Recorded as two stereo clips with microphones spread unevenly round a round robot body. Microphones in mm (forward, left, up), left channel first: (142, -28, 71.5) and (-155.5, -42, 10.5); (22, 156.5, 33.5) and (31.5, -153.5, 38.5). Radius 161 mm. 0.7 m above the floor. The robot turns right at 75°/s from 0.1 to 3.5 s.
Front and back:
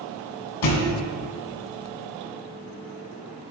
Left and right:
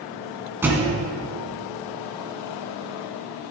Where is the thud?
5° right, 2 m; by 1.0 s 20° left, 2 m.